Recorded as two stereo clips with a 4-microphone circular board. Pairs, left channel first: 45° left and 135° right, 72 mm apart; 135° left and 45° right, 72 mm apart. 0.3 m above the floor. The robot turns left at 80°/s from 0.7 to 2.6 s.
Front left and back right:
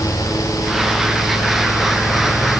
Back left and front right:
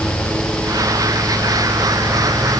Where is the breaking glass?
I don't hear breaking glass.